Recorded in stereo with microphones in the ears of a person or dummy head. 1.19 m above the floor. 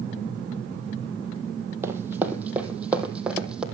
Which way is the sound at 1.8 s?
15° right (ahead or behind).